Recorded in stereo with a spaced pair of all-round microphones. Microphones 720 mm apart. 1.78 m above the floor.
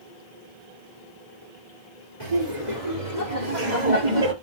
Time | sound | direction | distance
2.2 | laughter | 70° right (ahead or behind) | 4.5 m